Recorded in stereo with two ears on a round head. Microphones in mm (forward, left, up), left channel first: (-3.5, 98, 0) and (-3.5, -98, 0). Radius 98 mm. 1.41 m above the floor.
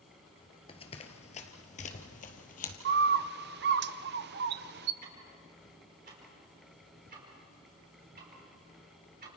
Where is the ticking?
45° right (ahead or behind), 5 m.